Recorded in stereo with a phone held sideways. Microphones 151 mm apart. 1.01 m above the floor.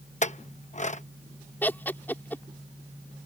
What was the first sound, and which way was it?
A clink, 55° left (ahead or behind).